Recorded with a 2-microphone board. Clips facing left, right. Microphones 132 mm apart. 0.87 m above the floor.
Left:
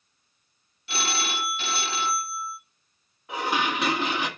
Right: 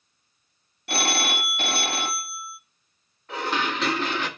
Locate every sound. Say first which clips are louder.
0.9 s a phone ringing: right 4 dB; 60° right (ahead or behind), 0.6 m
3.3 s dishes clattering: even; 15° left (ahead or behind), 1.1 m